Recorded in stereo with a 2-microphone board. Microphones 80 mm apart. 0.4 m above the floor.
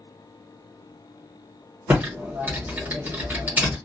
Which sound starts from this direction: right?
Typing on a keyboard, at 1.9 s.